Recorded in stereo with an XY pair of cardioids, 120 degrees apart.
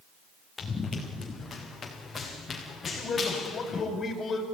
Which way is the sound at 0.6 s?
20° left.